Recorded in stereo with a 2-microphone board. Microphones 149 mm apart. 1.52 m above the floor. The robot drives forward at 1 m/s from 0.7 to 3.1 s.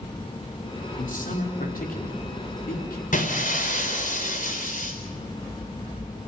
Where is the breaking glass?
65° left (ahead or behind), 4 m.